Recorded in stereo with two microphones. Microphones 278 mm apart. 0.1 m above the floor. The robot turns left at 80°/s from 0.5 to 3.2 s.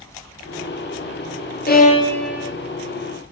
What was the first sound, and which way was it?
A violin, 50° left.